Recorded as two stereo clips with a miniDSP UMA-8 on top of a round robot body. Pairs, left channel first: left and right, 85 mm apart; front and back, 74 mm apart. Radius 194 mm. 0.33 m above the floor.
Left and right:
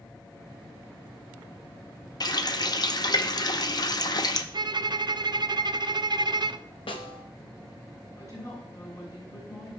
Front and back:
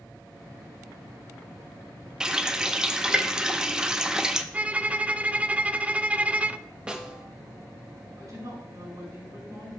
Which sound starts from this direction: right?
A violin, at 4.5 s.